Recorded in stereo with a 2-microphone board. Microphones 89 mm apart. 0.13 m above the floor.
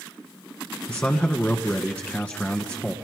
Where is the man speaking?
15° left (ahead or behind), 1.3 m.